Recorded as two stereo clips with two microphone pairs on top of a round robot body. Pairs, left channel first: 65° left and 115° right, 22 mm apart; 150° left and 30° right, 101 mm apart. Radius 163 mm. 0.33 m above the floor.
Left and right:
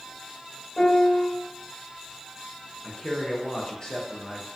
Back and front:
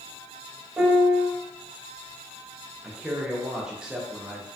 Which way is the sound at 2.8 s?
65° left.